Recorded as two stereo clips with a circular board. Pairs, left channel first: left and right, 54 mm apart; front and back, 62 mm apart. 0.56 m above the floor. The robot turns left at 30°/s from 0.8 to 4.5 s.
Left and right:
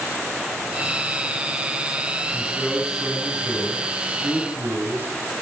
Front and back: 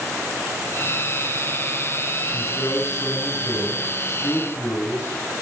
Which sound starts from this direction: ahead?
A man speaking, at 2.3 s.